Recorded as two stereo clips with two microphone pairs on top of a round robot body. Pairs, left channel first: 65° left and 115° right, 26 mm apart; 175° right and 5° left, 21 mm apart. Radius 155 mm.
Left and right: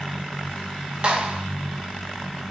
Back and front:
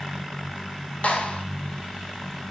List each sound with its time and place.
1.0 s a clap: 160° right, 2.5 m